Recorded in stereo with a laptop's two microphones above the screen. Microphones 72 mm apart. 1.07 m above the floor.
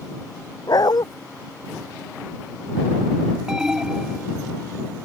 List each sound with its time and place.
0.7 s a dog barking: 70° left (ahead or behind)
3.5 s an alarm: 10° right (ahead or behind)